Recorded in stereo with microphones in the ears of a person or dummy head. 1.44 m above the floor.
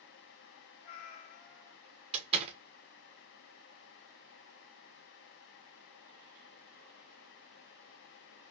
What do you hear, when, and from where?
0.8 s a cat meowing: 30° left (ahead or behind), 1.7 m
2.1 s a door slam: 35° right (ahead or behind), 1.5 m